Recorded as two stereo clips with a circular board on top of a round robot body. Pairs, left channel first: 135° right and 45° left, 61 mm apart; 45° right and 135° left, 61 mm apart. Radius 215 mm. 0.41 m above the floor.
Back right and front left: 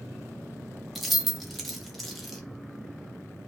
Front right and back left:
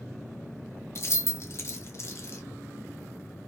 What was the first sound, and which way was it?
Keys jangling, 45° right.